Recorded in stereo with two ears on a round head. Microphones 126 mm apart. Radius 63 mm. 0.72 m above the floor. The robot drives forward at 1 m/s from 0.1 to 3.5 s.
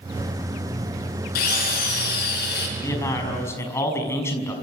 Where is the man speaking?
20° left (ahead or behind), 5 m.